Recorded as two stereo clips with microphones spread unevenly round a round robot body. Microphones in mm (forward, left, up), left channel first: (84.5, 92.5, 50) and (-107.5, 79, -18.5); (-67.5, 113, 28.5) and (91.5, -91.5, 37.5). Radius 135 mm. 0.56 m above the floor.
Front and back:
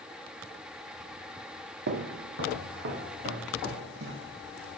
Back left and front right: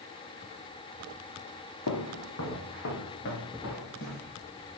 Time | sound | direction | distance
1.9 | footsteps | 160° left | 1.4 m